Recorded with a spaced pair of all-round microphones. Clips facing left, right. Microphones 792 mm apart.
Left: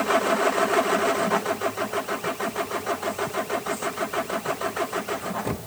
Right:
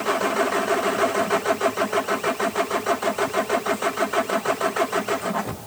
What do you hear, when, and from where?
Only background noise.